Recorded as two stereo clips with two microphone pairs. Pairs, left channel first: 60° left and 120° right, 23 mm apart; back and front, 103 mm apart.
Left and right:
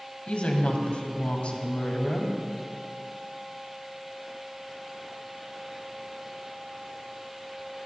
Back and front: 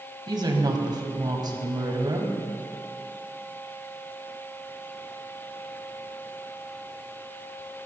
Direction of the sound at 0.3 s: 40° left.